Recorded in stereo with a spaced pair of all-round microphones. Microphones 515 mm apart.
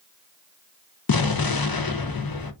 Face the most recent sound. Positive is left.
turn(degrees=45)  # may be behind; listen again after turning